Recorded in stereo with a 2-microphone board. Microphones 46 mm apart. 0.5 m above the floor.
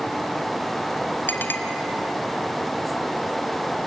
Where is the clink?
50° left (ahead or behind), 1.6 m.